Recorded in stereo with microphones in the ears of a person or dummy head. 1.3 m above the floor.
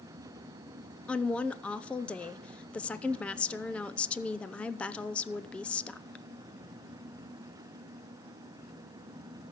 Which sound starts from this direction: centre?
A woman speaking, at 1.1 s.